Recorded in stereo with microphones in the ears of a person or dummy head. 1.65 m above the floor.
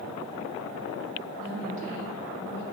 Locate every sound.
1.4 s a woman speaking: 80° right, 2 m; by 2.6 s 65° right (ahead or behind), 1.7 m